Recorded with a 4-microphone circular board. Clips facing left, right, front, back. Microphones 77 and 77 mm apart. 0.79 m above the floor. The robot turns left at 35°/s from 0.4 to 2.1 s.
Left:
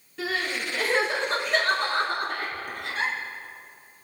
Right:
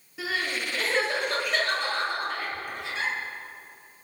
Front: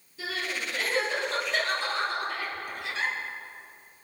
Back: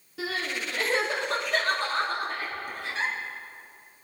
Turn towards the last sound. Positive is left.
turn(degrees=125)